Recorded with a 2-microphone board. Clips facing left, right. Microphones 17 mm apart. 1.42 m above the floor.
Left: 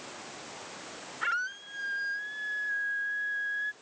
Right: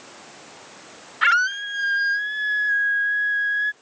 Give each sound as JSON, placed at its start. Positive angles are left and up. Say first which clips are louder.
{"t": 1.2, "sound": "a scream", "louder": "right 13 dB", "side_deg": -55}